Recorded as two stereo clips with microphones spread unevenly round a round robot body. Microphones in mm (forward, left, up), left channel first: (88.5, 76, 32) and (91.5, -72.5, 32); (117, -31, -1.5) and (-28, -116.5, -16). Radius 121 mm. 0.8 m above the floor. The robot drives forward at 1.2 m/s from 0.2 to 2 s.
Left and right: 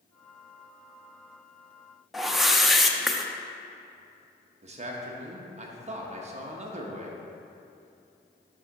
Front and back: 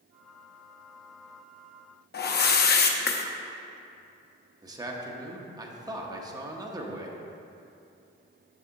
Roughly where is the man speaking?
Right.